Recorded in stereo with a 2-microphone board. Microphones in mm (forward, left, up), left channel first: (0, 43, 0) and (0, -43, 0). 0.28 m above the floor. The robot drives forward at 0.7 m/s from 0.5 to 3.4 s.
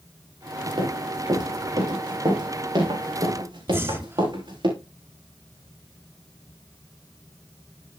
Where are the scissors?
No scissors in this recording.